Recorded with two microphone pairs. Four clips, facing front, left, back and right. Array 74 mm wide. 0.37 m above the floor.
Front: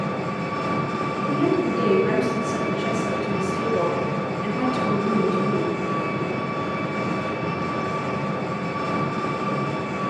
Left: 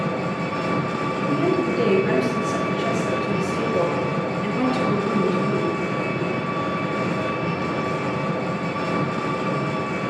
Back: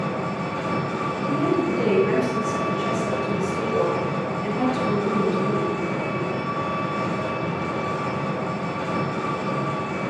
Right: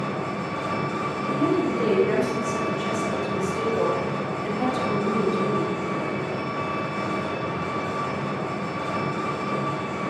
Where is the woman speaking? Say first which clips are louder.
Left 1 dB, front 1 dB; 45° left, 4.5 m.